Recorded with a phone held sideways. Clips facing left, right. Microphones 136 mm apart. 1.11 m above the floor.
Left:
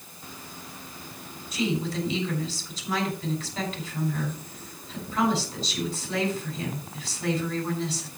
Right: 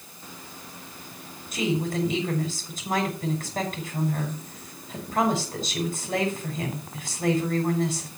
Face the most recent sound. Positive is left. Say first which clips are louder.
# right 2 dB
turn(degrees=-50)  # may be behind; listen again after turning